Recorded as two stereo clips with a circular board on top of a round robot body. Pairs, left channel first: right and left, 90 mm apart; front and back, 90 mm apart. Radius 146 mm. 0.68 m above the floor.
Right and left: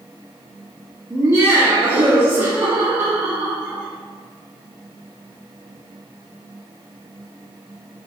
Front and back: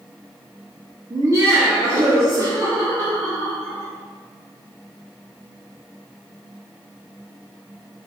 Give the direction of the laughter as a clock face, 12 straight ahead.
7 o'clock.